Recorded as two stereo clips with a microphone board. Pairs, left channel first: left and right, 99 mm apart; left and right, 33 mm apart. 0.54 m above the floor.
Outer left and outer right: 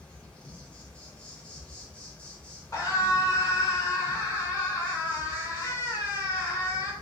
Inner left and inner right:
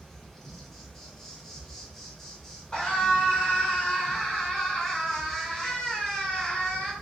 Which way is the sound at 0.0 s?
10° left (ahead or behind).